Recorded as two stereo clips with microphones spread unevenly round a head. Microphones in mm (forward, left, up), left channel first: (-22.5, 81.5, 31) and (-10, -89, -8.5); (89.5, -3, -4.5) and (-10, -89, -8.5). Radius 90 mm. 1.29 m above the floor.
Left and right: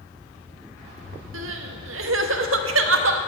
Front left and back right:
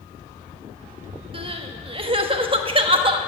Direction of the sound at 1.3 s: 95° right.